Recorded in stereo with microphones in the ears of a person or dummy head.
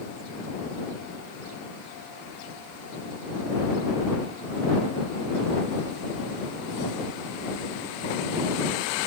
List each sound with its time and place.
Only background noise.